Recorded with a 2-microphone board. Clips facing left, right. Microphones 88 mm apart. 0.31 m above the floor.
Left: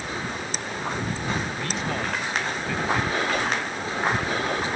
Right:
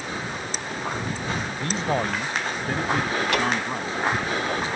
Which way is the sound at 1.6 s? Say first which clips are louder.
Right 3 dB; 25° right (ahead or behind).